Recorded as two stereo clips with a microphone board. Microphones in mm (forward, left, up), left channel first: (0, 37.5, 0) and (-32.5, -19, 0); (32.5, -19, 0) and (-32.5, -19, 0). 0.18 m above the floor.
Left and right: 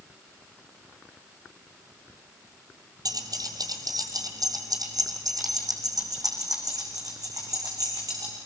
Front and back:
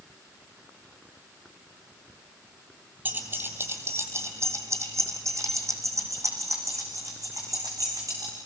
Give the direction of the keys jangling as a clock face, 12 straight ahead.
4 o'clock.